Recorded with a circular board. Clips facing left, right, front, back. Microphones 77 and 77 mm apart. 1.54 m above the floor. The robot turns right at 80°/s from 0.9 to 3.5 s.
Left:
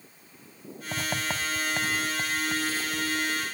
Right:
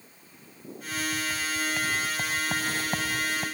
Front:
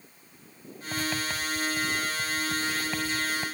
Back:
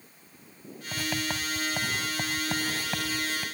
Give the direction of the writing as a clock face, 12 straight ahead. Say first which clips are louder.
Even, front 1 dB; 9 o'clock.